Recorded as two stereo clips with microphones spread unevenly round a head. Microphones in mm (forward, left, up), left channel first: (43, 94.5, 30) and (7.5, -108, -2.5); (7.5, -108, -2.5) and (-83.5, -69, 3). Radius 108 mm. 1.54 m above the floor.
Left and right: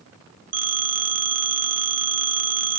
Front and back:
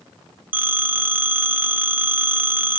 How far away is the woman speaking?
No woman speaking in this recording.